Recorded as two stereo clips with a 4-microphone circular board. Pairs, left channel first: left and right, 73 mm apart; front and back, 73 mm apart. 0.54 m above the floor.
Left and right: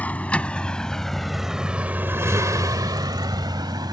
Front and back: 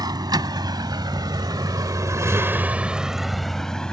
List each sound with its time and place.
0.0 s a vehicle: 160° left; by 3.9 s 80° right